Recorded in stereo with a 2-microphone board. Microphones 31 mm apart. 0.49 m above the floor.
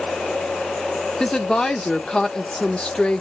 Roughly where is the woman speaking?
Left.